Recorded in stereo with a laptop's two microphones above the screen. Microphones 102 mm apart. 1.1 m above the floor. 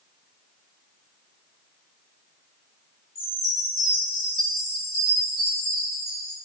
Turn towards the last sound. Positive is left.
turn(degrees=-40)  # may be behind; listen again after turning